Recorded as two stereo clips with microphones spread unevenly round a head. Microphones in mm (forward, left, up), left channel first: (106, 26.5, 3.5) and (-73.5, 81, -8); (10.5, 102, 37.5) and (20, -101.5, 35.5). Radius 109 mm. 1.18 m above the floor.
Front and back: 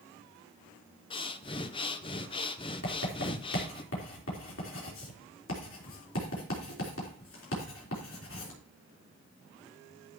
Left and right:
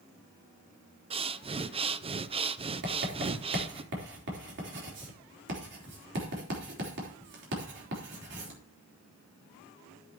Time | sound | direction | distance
1.1 | breathing | 60° right | 0.6 m
2.8 | writing | 55° right | 3.5 m